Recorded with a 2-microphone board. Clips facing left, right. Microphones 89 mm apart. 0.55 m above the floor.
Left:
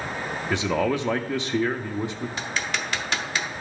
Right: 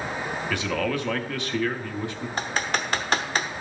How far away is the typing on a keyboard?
About 0.7 m.